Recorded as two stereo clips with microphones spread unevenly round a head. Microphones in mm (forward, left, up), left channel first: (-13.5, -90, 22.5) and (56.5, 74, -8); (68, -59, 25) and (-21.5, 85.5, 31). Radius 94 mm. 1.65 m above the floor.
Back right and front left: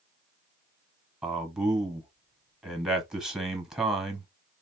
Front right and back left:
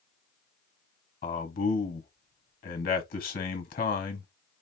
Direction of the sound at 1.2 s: 20° right.